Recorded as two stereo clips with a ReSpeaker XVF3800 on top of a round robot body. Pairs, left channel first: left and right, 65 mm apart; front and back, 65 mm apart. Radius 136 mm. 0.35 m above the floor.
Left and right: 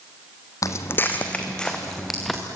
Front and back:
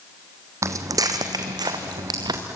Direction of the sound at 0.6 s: 130° left.